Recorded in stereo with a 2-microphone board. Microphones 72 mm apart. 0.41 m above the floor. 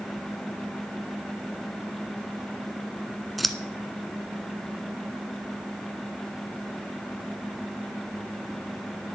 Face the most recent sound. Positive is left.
turn(degrees=0)  # may be behind; listen again after turning